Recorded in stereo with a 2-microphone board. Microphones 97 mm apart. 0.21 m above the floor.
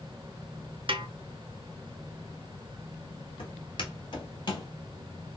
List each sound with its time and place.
0.9 s a snare drum: 60° right (ahead or behind), 0.5 m
3.4 s footsteps: 65° left (ahead or behind), 3 m; by 4.7 s 45° left (ahead or behind), 2 m